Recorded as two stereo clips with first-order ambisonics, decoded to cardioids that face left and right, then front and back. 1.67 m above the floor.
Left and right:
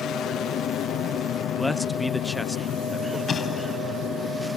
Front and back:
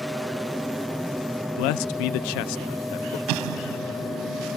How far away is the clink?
I don't hear a clink.